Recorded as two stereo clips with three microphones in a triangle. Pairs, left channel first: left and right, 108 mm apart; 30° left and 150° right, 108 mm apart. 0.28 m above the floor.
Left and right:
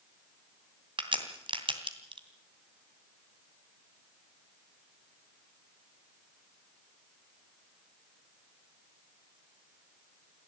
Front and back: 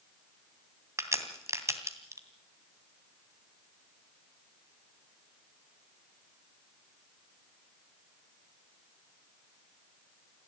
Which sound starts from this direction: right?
A crack, at 1.0 s.